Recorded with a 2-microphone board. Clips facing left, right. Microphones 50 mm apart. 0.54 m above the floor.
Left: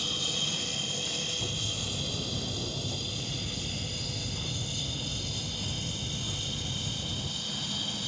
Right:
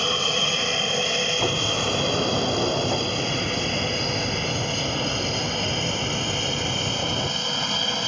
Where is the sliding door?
65° right (ahead or behind).